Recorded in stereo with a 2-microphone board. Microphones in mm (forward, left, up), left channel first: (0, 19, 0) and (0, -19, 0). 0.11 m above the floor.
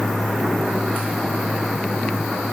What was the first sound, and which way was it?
Only background noise.